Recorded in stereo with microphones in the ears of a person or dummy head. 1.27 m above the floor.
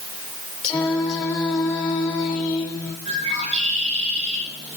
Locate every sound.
0.6 s singing: 30° left (ahead or behind), 3.5 m
3.0 s a bird: 40° right (ahead or behind), 9 m